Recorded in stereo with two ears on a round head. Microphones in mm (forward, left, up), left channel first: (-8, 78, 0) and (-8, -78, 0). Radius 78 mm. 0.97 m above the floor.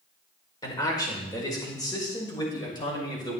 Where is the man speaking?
20° left (ahead or behind), 3 m; by 3.4 s 25° left (ahead or behind), 4.5 m.